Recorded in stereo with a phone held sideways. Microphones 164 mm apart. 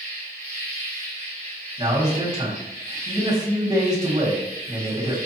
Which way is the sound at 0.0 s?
75° left (ahead or behind).